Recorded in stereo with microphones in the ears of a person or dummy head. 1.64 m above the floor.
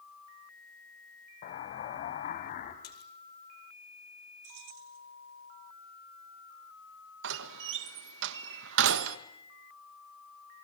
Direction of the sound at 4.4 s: 75° right (ahead or behind).